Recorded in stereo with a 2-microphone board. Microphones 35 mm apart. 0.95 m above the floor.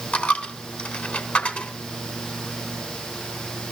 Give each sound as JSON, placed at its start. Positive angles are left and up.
{"t": 0.1, "sound": "a dropped coin", "side_deg": 45, "distance_m": 2.5}